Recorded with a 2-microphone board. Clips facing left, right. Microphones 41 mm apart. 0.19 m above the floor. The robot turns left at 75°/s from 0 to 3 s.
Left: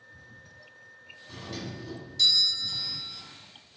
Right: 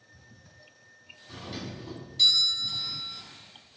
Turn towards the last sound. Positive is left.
turn(degrees=-130)